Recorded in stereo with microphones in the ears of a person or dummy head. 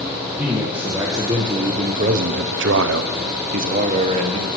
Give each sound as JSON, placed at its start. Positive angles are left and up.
{"t": 0.4, "sound": "a man speaking", "side_deg": -10, "distance_m": 1.8}